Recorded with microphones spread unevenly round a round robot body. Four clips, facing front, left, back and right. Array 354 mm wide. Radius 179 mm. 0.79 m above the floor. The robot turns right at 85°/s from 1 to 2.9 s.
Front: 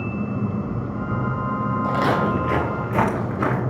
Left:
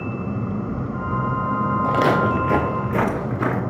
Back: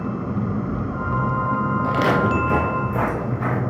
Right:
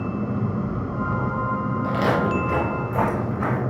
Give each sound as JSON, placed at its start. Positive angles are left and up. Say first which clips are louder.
{"t": 1.8, "sound": "footsteps", "louder": "left 3 dB, back 1 dB", "azimuth_deg": 110, "distance_m": 1.3}